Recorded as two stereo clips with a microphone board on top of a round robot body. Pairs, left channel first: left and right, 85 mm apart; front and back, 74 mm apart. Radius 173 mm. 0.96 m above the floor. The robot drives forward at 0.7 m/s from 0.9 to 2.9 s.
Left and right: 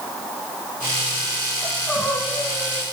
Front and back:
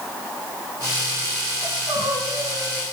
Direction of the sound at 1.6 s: 175° left.